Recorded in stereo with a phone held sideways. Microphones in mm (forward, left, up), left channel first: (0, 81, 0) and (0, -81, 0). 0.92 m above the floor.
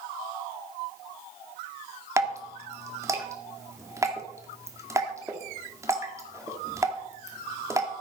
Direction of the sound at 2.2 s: 20° right (ahead or behind).